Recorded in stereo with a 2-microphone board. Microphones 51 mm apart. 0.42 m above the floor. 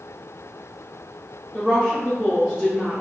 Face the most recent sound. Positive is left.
turn(degrees=5)  # may be behind; listen again after turning